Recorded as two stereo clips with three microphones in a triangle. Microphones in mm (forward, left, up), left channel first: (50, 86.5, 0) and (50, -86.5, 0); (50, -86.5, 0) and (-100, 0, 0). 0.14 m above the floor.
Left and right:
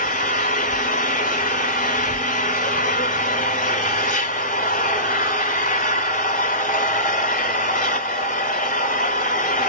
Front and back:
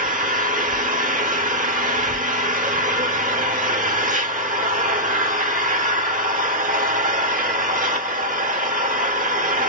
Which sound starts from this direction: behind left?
An engine running, at 0.0 s.